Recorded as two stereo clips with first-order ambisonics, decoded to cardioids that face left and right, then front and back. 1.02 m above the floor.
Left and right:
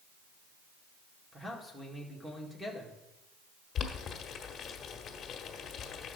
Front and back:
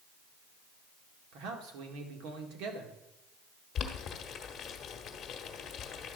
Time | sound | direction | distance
1.3 | a man speaking | 175° right | 1.6 m
3.8 | boiling | 40° left | 1.0 m